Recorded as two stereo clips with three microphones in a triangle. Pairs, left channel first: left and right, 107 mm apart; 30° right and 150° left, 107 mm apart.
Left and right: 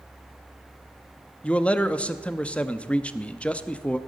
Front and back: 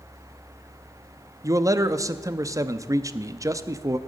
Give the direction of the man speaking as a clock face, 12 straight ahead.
7 o'clock.